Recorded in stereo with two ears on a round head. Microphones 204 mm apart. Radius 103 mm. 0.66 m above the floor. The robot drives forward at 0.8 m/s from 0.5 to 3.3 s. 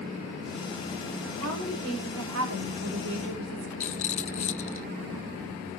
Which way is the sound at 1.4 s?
70° right (ahead or behind).